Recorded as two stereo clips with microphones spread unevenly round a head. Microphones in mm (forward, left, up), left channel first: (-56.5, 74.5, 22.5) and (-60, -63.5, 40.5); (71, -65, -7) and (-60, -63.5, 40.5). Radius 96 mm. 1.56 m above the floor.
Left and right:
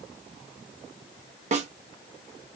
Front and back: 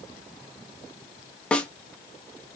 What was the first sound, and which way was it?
A snare drum, 95° right.